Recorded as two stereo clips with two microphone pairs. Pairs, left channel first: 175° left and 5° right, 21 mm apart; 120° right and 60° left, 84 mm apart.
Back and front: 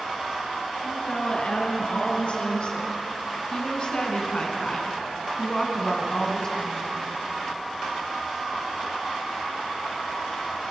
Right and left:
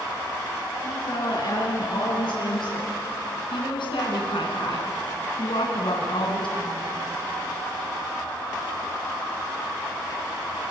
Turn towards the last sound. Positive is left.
turn(degrees=-115)